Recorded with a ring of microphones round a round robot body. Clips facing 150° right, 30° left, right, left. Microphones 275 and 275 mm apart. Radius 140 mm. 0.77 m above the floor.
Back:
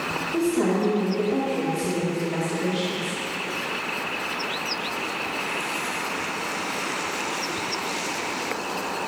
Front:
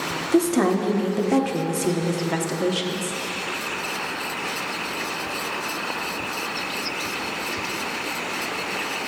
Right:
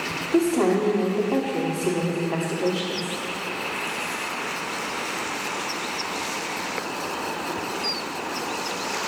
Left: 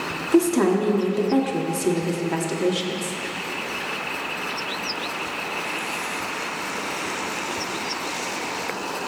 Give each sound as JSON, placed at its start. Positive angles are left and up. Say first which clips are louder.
{"t": 0.3, "sound": "a woman speaking", "louder": "front 3 dB, left 2 dB", "azimuth_deg": 35, "distance_m": 1.2}